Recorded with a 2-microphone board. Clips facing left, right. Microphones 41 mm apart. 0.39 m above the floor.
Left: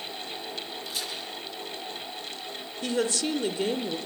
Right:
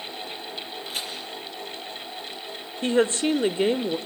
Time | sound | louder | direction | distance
0.8 | a crack | right 3 dB | 40° right (ahead or behind) | 8.5 m
2.8 | a woman speaking | right 6 dB | 30° right (ahead or behind) | 0.9 m